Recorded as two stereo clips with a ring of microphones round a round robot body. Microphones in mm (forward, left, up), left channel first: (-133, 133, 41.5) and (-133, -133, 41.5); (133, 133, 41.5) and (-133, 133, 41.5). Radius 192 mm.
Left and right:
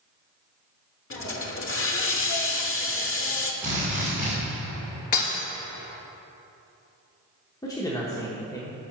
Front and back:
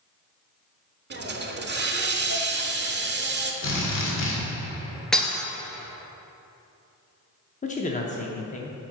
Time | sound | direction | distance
1.1 | a hiss | 130° left | 1.1 m
3.6 | a drill | 10° right | 1.9 m
5.1 | breaking glass | 90° left | 1.7 m
7.6 | a man speaking | 25° left | 0.7 m